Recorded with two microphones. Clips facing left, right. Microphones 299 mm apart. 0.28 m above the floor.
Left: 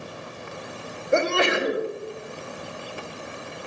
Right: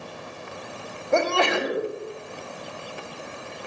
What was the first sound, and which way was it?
A sneeze, 20° left (ahead or behind).